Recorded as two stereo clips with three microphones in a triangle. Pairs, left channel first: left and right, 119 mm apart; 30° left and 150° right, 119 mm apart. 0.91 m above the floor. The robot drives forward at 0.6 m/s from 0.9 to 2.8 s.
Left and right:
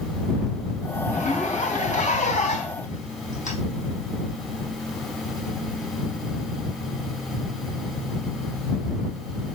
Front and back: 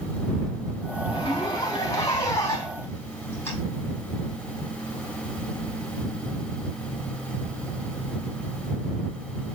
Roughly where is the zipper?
Left.